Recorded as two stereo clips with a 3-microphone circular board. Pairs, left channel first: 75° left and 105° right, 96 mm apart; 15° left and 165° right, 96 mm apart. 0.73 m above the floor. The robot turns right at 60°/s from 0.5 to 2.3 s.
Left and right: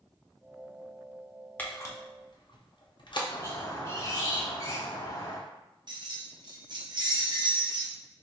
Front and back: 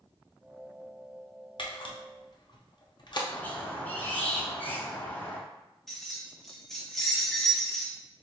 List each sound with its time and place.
1.6 s a camera shutter: 5° left, 0.6 m; by 3.2 s 45° left, 0.6 m
3.3 s a squeak: 70° left, 0.7 m
5.9 s keys jangling: 70° right, 0.7 m